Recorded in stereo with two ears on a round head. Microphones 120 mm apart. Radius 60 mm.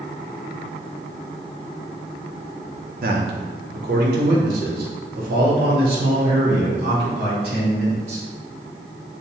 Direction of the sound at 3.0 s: 75° right (ahead or behind).